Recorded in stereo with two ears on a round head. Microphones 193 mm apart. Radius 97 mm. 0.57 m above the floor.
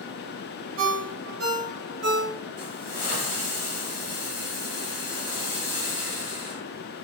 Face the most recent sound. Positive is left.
turn(degrees=40)  # may be behind; listen again after turning